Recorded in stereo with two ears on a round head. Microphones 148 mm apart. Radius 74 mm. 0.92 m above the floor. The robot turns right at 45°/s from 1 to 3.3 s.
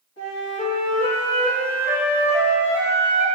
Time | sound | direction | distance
0.2 | a flute | 80° left | 1.7 m